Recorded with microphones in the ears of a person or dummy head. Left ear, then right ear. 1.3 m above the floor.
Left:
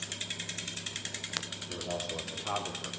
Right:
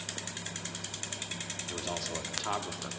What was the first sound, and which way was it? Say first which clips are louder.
A man speaking: even; 65° right (ahead or behind).